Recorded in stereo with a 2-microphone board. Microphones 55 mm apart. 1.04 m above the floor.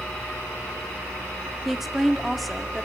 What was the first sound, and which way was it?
A woman speaking, 5° right (ahead or behind).